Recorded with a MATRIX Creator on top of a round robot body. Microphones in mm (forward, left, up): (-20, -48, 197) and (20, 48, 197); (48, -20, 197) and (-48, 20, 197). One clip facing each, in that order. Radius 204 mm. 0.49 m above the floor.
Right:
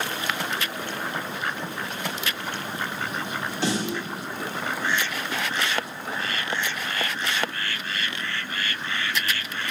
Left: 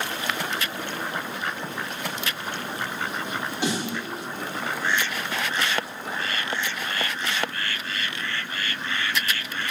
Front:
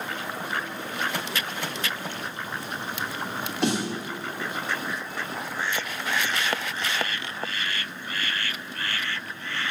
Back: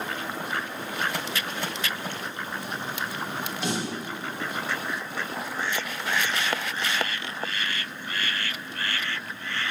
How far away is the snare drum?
About 1.7 m.